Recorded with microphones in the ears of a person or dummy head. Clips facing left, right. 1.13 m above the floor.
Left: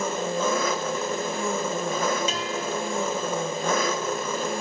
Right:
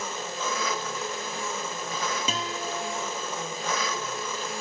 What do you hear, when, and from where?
0.0 s an engine running: 45° left (ahead or behind), 1.2 m
2.3 s a guitar: 65° right (ahead or behind), 2.5 m